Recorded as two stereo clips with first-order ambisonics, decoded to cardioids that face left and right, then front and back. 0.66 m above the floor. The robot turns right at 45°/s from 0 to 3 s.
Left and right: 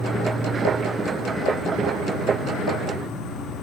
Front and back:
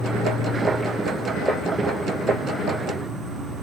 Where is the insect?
15° right, 0.8 m; by 3.6 s 120° left, 0.8 m.